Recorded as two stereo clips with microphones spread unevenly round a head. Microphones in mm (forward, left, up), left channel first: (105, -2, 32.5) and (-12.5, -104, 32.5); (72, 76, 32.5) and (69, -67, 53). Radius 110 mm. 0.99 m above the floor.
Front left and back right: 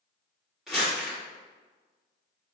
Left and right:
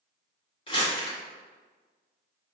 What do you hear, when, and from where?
0.7 s crumpling: 135° left, 1.6 m